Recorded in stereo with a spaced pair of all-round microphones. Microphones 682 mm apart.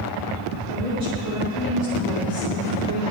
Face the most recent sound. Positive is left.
turn(degrees=60)  # may be behind; listen again after turning